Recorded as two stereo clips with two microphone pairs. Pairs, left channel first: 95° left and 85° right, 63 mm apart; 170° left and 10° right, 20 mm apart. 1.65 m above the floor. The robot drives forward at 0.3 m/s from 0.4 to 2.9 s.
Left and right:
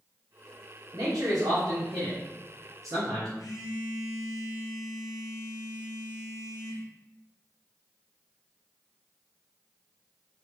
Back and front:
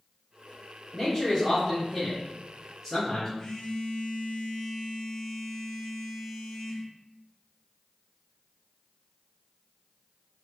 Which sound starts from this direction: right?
A man speaking, at 0.9 s.